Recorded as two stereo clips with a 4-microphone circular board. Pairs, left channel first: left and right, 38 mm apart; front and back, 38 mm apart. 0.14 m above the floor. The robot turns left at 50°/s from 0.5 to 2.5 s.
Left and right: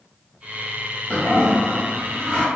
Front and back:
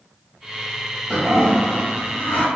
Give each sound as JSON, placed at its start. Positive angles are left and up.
{"t": 1.1, "sound": "a toilet flushing", "azimuth_deg": 80, "distance_m": 1.3}